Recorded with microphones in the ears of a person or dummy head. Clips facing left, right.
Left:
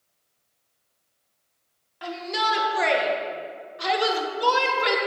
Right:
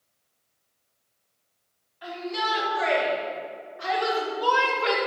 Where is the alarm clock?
I don't hear an alarm clock.